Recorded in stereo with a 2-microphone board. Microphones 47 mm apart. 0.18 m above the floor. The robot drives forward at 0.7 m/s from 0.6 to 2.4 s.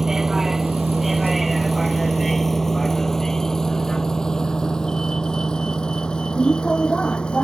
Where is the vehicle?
10° right (ahead or behind); by 7.5 s 20° left (ahead or behind).